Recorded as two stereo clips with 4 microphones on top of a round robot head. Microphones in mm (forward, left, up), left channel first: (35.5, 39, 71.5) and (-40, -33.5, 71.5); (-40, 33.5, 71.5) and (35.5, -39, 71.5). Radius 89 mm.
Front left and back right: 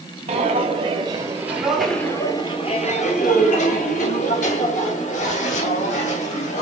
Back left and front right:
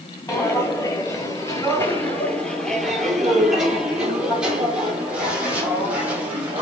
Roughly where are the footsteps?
Behind.